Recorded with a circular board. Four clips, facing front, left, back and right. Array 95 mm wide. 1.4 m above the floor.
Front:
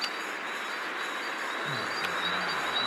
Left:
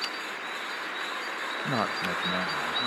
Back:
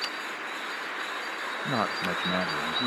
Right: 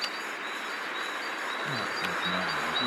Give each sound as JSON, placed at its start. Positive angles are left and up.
{"t": 1.6, "sound": "a man speaking", "azimuth_deg": 135, "distance_m": 0.7}